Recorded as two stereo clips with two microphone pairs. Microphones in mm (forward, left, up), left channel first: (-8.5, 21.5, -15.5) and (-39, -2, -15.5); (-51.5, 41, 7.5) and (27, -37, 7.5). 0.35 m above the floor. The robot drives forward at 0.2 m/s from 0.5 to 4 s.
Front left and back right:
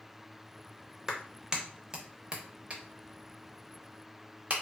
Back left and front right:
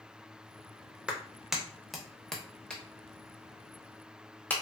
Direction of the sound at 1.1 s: 110° right.